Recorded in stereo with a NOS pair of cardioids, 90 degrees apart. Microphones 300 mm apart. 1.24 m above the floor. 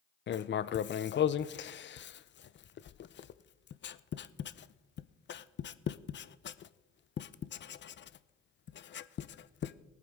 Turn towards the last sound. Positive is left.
turn(degrees=40)